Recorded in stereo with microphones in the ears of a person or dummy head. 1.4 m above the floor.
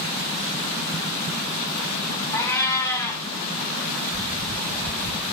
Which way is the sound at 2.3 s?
15° left (ahead or behind).